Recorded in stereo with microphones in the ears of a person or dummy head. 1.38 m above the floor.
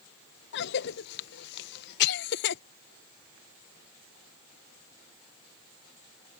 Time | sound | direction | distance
0.5 | a cough | 60° left (ahead or behind) | ?